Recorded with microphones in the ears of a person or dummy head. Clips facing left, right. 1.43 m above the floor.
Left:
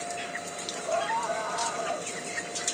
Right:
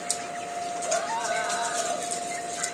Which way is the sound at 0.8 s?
20° right (ahead or behind).